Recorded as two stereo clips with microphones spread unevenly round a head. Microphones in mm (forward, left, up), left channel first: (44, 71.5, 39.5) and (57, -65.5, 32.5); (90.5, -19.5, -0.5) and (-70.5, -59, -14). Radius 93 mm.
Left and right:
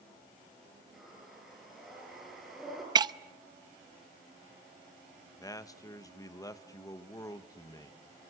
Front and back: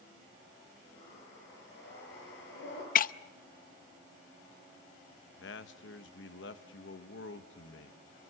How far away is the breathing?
About 10 m.